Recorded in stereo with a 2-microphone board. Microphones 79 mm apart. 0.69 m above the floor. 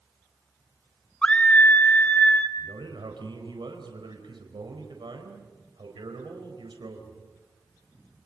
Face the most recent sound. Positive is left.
turn(degrees=-75)  # may be behind; listen again after turning